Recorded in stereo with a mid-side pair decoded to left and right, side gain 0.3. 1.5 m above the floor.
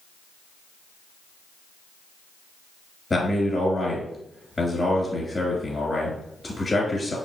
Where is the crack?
I don't hear a crack.